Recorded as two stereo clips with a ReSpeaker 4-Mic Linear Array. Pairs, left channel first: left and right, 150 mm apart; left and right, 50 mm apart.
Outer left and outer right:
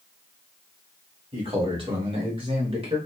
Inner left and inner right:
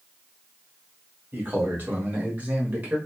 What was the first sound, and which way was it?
A man speaking, 35° right (ahead or behind).